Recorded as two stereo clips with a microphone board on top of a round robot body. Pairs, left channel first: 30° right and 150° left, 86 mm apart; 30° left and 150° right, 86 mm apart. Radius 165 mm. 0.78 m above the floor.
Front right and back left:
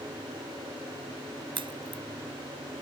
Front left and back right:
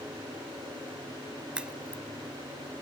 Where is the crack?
130° left.